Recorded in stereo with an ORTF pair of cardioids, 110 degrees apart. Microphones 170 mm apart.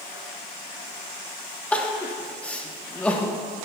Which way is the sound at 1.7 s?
10° left.